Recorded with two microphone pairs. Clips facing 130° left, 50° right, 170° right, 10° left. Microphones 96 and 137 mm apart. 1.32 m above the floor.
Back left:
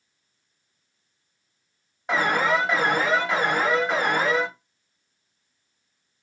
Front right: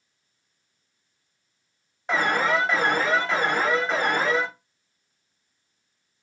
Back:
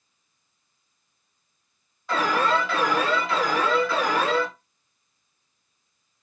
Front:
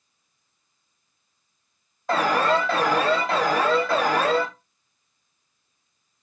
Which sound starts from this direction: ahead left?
An alarm, at 2.1 s.